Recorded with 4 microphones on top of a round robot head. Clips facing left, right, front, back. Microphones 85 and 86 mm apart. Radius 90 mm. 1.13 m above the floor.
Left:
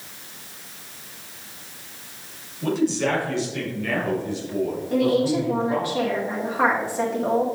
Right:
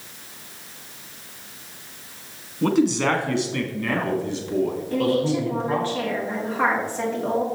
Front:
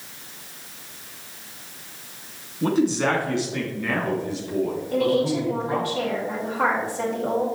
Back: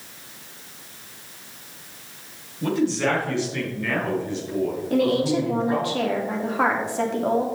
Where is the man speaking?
70° right, 1.8 m; by 5.9 s 90° right, 3.5 m.